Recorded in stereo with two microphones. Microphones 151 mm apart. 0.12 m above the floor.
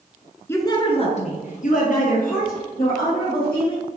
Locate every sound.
0.5 s a woman speaking: 15° left (ahead or behind), 1.1 m; by 3.9 s 75° left (ahead or behind), 4.5 m